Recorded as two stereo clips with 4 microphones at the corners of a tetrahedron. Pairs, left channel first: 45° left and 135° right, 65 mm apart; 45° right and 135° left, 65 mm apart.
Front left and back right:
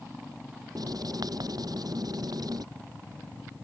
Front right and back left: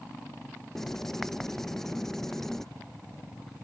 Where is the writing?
130° right.